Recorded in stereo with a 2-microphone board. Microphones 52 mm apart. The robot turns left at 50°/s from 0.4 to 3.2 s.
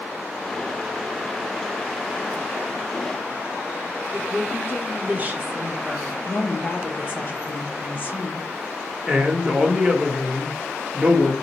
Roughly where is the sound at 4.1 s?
Right.